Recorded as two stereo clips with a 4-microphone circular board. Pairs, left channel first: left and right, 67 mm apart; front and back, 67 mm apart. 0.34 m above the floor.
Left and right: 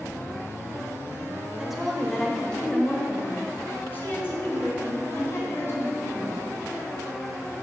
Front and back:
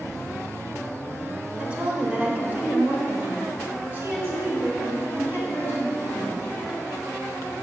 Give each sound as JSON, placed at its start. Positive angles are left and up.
{"t": 1.6, "sound": "a woman speaking", "azimuth_deg": -155, "distance_m": 1.1}